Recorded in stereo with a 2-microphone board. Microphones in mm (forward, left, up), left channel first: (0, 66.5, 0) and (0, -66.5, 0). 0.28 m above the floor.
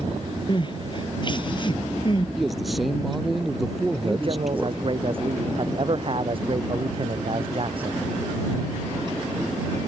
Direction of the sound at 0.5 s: 35° left (ahead or behind).